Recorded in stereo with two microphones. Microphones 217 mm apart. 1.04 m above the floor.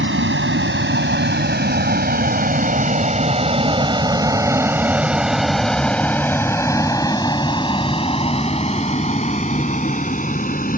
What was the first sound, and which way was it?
A vehicle, 65° right (ahead or behind).